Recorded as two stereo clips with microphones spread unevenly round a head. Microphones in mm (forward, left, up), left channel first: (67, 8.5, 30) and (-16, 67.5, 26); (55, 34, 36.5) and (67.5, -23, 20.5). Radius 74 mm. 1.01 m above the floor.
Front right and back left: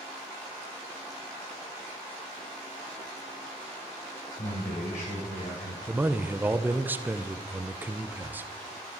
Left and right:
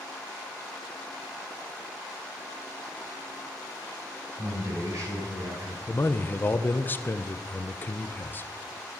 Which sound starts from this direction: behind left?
A man speaking, at 5.9 s.